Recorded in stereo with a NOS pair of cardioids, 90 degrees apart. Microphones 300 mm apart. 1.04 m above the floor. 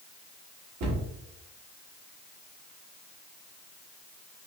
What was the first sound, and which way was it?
A cupboard door, 65° right.